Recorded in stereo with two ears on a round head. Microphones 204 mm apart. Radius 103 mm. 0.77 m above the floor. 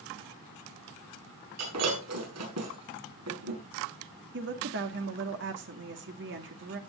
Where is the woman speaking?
55° right (ahead or behind), 1.7 m.